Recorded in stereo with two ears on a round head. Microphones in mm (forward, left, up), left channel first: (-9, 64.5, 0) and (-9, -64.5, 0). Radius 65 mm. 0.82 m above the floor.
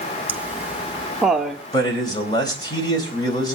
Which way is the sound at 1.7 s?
25° left (ahead or behind).